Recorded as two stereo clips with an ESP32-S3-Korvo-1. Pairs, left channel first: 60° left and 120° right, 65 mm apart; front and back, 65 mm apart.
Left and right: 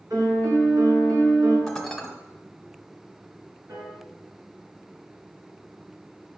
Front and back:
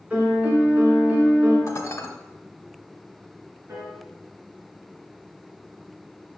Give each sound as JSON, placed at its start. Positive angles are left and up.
{"t": 0.1, "sound": "a piano", "azimuth_deg": -115, "distance_m": 2.5}
{"t": 1.7, "sound": "dishes clattering", "azimuth_deg": -25, "distance_m": 1.0}
{"t": 3.7, "sound": "a piano", "azimuth_deg": -140, "distance_m": 3.0}